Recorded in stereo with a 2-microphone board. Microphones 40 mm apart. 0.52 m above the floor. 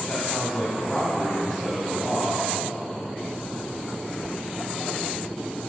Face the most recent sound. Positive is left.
turn(degrees=15)  # may be behind; listen again after turning